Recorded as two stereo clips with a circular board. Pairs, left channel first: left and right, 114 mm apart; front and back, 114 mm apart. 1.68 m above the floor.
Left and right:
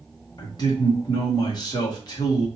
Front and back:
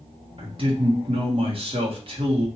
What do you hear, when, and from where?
0.4 s a man speaking: 145° left, 1.5 m